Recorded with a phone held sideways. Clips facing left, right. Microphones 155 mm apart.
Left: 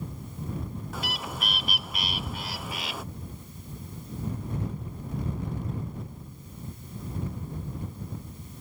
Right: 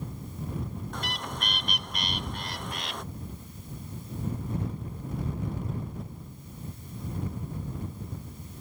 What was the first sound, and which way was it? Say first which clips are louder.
A bird: left 1 dB; 5° left (ahead or behind).